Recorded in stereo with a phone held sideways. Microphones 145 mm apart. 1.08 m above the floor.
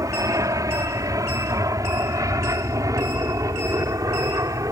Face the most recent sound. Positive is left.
turn(degrees=-25)  # may be behind; listen again after turning